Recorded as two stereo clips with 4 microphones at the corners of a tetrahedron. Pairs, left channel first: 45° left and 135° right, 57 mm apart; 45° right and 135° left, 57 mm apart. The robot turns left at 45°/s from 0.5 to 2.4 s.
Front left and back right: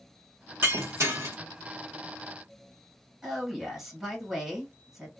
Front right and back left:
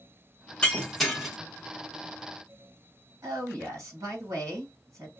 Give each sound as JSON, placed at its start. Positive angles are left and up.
{"t": 0.6, "sound": "breaking glass", "azimuth_deg": -115, "distance_m": 1.2}
{"t": 3.2, "sound": "a woman speaking", "azimuth_deg": 140, "distance_m": 2.0}